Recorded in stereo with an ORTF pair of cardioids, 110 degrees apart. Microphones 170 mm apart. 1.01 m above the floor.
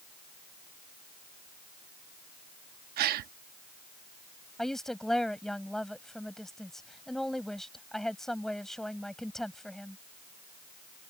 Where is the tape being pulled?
I don't hear tape being pulled.